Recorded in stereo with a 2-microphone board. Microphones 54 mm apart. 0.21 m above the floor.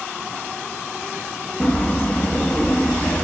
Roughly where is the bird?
Left.